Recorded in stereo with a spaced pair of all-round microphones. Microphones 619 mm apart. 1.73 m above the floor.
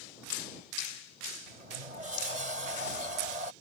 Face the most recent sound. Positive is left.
turn(degrees=-85)